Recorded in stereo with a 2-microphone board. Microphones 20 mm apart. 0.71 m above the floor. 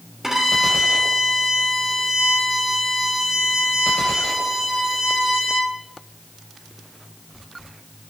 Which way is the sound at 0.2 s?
15° right (ahead or behind).